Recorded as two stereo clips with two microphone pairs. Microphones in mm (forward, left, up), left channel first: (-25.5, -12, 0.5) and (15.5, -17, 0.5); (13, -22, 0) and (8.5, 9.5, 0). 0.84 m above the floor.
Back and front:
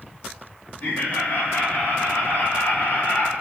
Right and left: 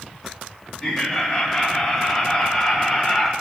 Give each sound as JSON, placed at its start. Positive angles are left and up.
{"t": 0.8, "sound": "laughter", "azimuth_deg": -145, "distance_m": 4.0}